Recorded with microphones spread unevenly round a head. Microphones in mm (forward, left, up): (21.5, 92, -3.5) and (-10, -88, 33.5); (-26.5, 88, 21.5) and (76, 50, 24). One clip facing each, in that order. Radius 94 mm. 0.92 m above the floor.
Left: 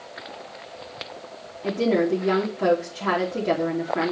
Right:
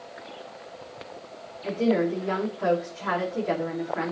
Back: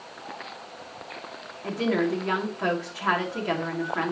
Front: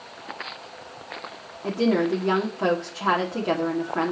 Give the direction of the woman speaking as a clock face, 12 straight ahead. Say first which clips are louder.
Left 2 dB, front 3 dB; 10 o'clock.